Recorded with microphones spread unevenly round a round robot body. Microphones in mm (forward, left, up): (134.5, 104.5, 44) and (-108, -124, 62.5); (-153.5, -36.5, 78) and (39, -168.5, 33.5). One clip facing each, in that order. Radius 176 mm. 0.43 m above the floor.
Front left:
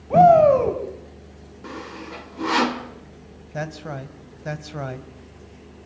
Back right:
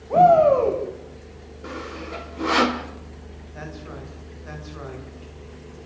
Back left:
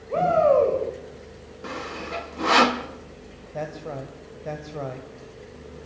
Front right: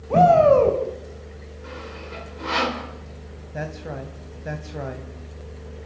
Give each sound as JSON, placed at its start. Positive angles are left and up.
{"t": 0.1, "sound": "a shout", "azimuth_deg": 5, "distance_m": 2.5}
{"t": 1.6, "sound": "sawing", "azimuth_deg": 120, "distance_m": 1.7}
{"t": 3.5, "sound": "a man speaking", "azimuth_deg": 45, "distance_m": 2.5}